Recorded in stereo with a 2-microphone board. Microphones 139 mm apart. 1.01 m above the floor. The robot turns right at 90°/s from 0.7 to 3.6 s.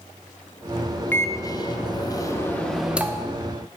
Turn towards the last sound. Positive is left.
turn(degrees=-110)